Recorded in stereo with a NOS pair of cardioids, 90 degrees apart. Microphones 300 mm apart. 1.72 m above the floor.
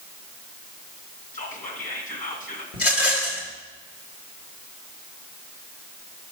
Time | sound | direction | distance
1.3 | whispering | 25° left | 2 m
2.7 | a rattle | 50° left | 2.5 m